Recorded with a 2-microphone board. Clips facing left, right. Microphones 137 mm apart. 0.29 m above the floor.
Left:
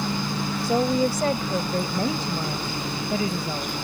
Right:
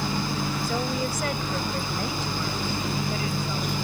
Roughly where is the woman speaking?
Left.